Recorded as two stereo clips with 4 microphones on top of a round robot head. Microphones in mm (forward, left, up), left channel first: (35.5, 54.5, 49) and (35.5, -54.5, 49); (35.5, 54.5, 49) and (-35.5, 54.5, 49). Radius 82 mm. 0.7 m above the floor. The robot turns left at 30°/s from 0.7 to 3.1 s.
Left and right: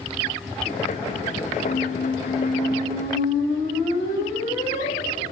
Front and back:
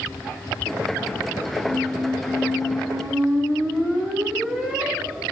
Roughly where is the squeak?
Behind left.